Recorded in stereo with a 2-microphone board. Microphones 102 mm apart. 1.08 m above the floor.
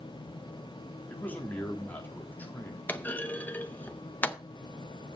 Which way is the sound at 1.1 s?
15° left (ahead or behind).